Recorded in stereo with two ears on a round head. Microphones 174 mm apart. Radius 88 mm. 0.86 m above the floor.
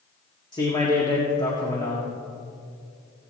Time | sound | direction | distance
0.5 | a man speaking | 20° left (ahead or behind) | 1.8 m